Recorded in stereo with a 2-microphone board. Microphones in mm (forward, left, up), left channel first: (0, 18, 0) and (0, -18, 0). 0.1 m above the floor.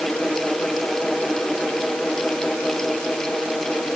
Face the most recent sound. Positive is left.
No sound to turn to.